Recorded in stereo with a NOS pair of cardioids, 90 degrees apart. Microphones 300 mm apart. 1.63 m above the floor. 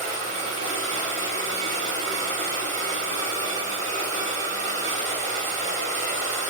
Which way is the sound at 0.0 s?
60° right.